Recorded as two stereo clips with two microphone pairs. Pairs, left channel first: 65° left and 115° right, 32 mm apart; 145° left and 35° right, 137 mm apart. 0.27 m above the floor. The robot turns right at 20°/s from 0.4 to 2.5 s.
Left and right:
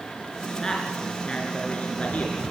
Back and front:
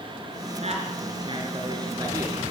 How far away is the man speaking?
About 3.5 m.